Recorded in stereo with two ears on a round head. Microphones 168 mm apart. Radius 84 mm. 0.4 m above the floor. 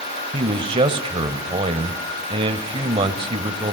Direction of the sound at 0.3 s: 25° right (ahead or behind).